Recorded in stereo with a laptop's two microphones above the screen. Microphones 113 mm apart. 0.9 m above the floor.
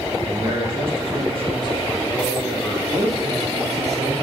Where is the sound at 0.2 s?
45° right (ahead or behind), 2.5 m; by 2.8 s 10° left (ahead or behind), 1.6 m.